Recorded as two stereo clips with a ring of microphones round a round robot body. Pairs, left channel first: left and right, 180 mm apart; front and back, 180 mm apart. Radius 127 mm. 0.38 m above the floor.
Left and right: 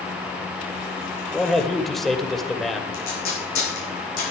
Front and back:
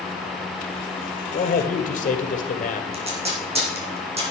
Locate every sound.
1.3 s a man speaking: straight ahead, 1.6 m
2.9 s tape being pulled: 125° left, 6.5 m